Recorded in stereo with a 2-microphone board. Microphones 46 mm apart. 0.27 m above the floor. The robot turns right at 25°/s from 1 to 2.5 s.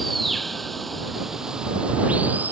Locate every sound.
0.0 s running water: straight behind; by 2.5 s 140° right